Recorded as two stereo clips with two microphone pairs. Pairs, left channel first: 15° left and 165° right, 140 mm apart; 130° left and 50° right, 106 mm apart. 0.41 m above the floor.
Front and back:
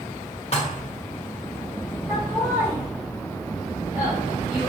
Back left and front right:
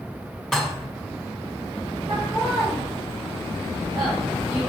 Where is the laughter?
95° right, 1.9 m.